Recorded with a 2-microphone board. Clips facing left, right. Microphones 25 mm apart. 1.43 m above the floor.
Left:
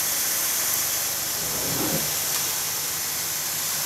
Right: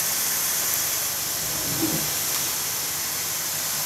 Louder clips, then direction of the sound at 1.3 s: Even; 80° left.